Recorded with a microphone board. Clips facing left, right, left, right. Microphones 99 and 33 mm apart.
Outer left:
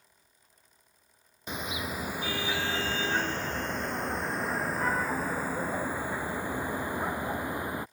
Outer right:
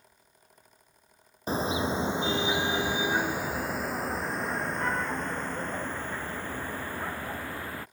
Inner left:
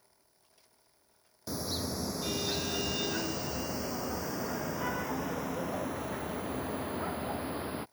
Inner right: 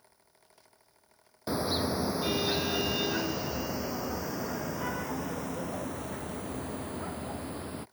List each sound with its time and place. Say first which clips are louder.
1.5 s a car horn: outer right 7 dB, inner right 6 dB; 35° right (ahead or behind); by 7.8 s 15° left (ahead or behind)